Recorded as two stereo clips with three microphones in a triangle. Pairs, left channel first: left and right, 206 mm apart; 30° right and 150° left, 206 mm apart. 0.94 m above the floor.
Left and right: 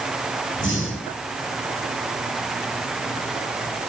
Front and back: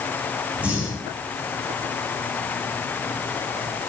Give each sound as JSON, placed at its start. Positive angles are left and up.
{"t": 0.6, "sound": "breathing", "azimuth_deg": 65, "distance_m": 8.5}